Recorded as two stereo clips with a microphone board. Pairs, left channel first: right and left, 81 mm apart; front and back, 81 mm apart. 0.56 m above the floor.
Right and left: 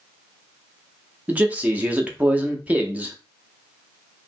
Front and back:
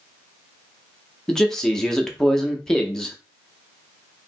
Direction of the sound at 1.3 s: 70° left.